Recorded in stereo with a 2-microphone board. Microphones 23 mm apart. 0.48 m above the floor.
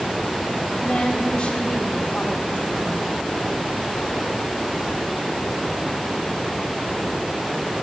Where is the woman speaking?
35° left (ahead or behind), 3 m.